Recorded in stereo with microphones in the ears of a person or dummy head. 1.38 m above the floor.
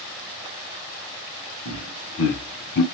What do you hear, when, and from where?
1.6 s laughter: 80° left, 1.0 m; by 2.8 s 55° left (ahead or behind), 0.5 m